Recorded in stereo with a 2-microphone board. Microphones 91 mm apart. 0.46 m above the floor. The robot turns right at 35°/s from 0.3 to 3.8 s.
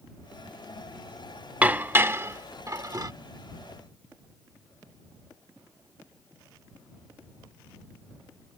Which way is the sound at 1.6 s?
15° right (ahead or behind).